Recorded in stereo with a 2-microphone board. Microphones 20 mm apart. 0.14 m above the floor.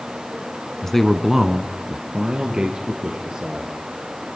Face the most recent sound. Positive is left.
turn(degrees=-55)  # may be behind; listen again after turning